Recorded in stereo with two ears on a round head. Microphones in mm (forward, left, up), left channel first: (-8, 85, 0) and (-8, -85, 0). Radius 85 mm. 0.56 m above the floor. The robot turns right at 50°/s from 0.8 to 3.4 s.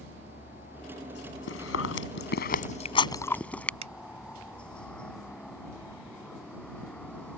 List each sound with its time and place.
0.0 s a helicopter: 45° left; by 7.4 s 175° left
1.5 s chewing: 70° left (ahead or behind); by 3.7 s 10° left (ahead or behind)
3.8 s a finger snap: 35° right (ahead or behind)